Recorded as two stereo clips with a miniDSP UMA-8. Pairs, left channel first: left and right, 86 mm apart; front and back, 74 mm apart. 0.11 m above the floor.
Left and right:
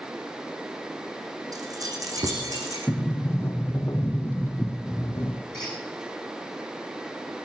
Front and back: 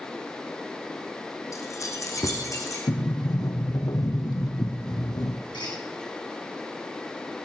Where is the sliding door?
30° left, 1.9 m.